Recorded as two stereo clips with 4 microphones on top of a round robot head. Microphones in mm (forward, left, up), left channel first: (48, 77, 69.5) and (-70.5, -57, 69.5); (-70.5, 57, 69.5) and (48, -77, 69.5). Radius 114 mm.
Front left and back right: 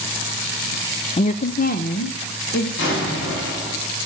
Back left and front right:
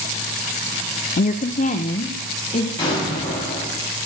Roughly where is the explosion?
Ahead left.